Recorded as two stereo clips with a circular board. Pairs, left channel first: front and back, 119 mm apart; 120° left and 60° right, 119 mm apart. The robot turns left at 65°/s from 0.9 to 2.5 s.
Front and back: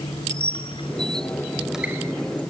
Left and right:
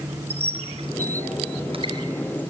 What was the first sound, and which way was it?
A squeak, 40° right.